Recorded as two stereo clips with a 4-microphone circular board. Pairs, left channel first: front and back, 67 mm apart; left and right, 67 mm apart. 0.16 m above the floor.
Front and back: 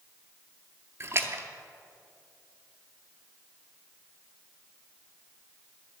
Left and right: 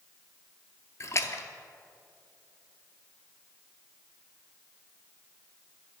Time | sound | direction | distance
1.0 | a splash | 135° left | 0.6 m